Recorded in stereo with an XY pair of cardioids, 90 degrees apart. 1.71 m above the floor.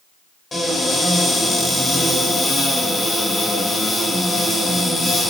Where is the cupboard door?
30° left, 1.4 m.